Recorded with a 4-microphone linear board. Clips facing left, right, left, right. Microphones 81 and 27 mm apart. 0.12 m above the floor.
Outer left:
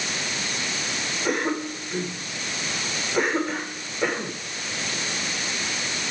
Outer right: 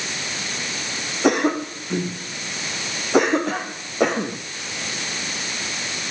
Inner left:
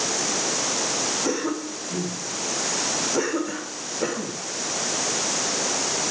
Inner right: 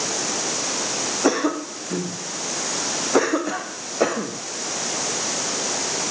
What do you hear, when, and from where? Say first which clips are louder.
1.2 s a cough: outer right 7 dB, inner right 5 dB; 70° right (ahead or behind), 6 m